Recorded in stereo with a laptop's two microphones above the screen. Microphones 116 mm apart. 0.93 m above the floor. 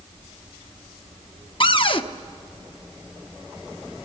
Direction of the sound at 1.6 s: 45° left (ahead or behind).